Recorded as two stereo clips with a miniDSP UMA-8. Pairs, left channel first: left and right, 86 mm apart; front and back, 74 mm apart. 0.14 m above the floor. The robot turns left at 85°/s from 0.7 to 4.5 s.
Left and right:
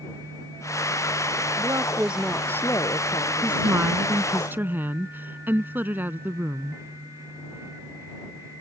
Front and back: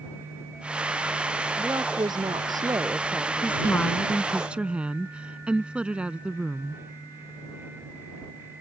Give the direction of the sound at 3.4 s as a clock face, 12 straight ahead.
1 o'clock.